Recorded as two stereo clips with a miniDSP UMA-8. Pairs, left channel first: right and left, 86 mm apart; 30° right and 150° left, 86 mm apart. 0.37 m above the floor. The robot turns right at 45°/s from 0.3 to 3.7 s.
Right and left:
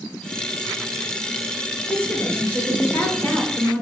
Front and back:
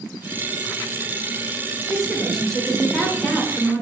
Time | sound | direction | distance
1.9 | a woman speaking | 135° right | 0.9 m